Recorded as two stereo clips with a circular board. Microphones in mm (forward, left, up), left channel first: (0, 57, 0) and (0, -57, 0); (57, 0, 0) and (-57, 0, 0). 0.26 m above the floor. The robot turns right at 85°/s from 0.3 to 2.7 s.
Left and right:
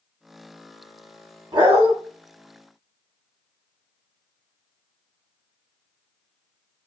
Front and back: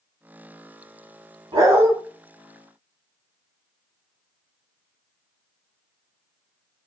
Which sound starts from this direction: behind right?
A dog barking, at 1.5 s.